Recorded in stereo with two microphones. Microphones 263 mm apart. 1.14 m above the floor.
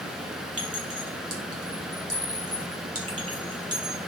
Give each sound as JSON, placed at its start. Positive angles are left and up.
{"t": 0.6, "sound": "a clink", "side_deg": -60, "distance_m": 2.5}